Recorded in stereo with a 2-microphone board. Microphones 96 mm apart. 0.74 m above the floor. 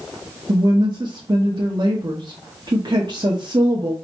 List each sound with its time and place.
0.5 s a woman speaking: 50° right (ahead or behind), 0.9 m